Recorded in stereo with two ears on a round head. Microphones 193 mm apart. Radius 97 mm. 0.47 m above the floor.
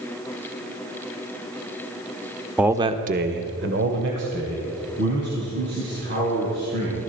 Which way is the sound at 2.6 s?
5° right (ahead or behind).